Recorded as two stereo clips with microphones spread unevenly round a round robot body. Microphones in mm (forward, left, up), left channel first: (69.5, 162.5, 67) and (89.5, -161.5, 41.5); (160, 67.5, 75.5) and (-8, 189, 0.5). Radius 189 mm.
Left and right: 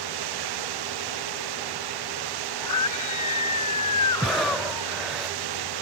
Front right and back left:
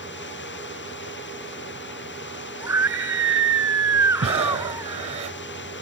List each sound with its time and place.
0.0 s running water: 95° right
2.6 s a scream: 65° left
4.2 s breathing: 175° right